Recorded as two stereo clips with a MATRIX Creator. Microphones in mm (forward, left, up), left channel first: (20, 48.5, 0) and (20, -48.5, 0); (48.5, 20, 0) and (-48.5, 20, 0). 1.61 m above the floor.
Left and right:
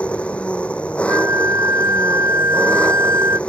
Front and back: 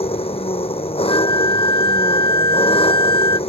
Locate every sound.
0.0 s an engine running: 10° left
1.1 s a flute: 35° right